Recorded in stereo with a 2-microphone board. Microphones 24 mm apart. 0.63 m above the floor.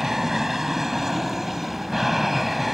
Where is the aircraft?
15° right (ahead or behind); by 2.8 s 5° right (ahead or behind).